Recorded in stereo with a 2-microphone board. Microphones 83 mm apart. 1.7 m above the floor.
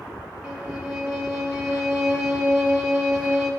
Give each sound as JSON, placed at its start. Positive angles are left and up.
{"t": 0.4, "sound": "a violin", "side_deg": -5, "distance_m": 1.9}